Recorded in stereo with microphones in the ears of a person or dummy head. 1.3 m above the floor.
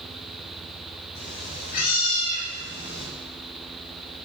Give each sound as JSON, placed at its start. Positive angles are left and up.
{"t": 1.1, "sound": "a cat meowing", "side_deg": 50, "distance_m": 6.5}